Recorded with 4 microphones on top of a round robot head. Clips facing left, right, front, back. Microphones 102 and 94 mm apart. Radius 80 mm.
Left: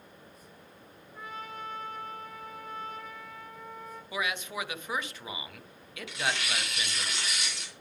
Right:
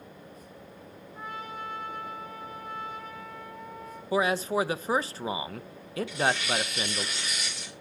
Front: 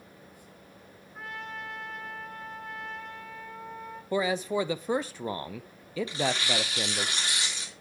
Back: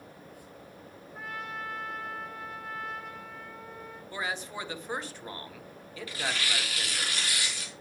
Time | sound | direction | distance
1.1 | a trumpet | 95° left | 3.5 m
4.1 | a man speaking | 30° right | 0.6 m
6.1 | tearing paper | 70° left | 3.5 m